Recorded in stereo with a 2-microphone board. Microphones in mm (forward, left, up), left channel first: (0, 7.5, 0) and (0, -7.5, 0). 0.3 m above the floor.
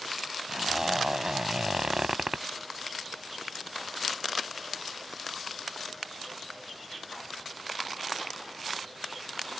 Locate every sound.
0.5 s a zipper: 40° right (ahead or behind)